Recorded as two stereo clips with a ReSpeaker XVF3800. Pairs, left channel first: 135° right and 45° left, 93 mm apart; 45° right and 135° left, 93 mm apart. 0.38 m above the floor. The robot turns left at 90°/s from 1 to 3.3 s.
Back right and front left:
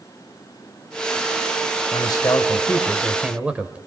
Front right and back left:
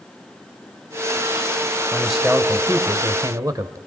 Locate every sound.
1.9 s a man speaking: 120° right, 1.7 m; by 3.8 s 115° left, 1.7 m